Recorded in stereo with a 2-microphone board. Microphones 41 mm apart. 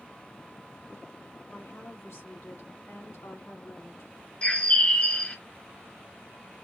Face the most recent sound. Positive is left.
turn(degrees=25)  # may be behind; listen again after turning